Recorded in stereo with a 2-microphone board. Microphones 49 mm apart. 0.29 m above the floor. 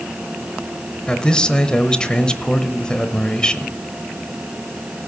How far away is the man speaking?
About 0.9 m.